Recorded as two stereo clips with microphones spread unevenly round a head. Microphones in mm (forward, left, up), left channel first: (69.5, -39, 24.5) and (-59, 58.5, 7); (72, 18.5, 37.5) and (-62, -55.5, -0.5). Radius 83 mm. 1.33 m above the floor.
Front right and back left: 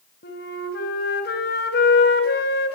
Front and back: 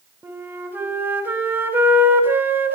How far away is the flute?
About 5 m.